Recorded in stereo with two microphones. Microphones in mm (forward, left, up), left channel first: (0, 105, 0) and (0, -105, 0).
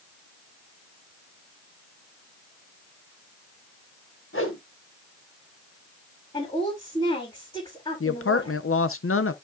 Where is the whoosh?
70° left (ahead or behind), 2.5 m.